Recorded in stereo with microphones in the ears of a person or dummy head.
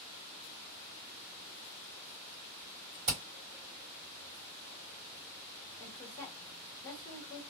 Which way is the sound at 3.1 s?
30° right (ahead or behind).